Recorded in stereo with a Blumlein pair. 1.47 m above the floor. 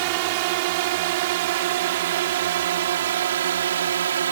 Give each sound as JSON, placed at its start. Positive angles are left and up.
{"t": 0.0, "sound": "a drone", "azimuth_deg": -45}